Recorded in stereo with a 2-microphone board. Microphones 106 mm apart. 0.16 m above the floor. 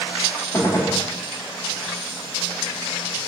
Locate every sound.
0.5 s a gunshot: 30° left (ahead or behind), 3 m